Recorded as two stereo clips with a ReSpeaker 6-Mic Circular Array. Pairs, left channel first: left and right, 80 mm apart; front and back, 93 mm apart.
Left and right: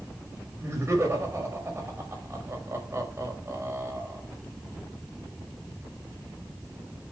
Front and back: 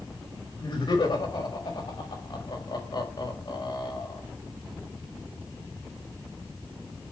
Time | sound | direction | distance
0.6 | laughter | 35° right | 5.5 m